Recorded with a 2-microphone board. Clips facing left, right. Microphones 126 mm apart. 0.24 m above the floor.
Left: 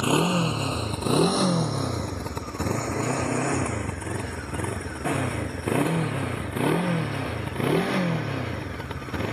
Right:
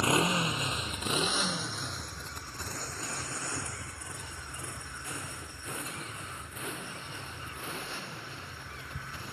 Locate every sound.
0.0 s a motorcycle: 20° left (ahead or behind); by 9.3 s 85° left